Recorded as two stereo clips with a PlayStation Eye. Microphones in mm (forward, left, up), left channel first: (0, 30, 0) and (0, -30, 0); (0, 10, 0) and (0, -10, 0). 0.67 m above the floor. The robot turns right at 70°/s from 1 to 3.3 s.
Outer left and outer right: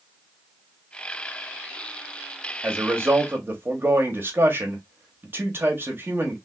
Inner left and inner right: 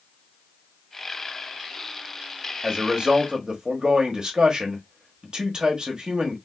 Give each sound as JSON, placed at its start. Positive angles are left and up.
{"t": 2.6, "sound": "a man speaking", "azimuth_deg": -115, "distance_m": 1.0}